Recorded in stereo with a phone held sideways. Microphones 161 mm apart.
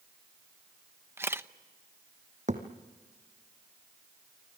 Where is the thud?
50° right (ahead or behind), 2.5 m.